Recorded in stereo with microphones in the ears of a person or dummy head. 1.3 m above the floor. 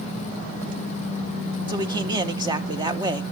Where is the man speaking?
20° right (ahead or behind), 1.1 m.